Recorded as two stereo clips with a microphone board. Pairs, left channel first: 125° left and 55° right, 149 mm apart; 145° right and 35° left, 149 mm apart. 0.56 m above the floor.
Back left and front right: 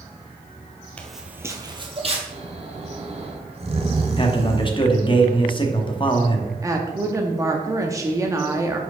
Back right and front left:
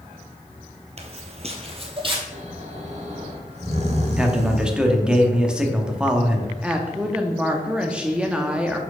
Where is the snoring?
10° right, 0.9 m.